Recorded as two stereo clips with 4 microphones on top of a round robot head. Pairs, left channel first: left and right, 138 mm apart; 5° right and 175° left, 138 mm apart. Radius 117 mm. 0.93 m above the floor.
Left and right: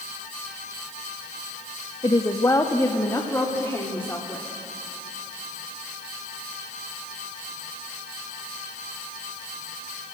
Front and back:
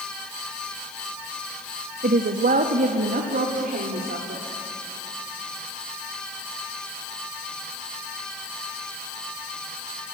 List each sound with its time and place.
2.0 s a woman speaking: 155° left, 1.1 m; by 4.5 s 165° left, 2.5 m